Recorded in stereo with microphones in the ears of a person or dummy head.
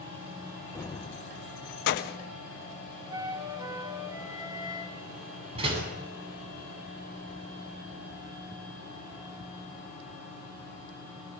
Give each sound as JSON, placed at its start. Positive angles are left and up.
{"t": 0.8, "sound": "keys jangling", "side_deg": 10, "distance_m": 0.5}
{"t": 3.1, "sound": "a flute", "side_deg": -20, "distance_m": 2.5}
{"t": 5.5, "sound": "a door slam", "side_deg": -30, "distance_m": 8.5}